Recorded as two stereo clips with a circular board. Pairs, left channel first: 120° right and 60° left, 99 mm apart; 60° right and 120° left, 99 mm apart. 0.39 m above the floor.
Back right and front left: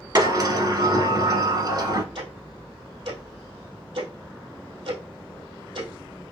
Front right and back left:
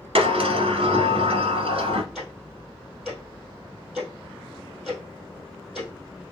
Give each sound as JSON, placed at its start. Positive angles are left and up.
{"t": 0.1, "sound": "a sliding door", "azimuth_deg": 105, "distance_m": 1.1}
{"t": 2.1, "sound": "ticking", "azimuth_deg": 35, "distance_m": 2.5}